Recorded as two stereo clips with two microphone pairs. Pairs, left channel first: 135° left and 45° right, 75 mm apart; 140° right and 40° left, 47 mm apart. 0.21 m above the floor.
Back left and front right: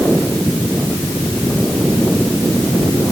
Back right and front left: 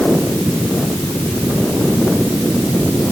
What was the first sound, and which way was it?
Only background noise.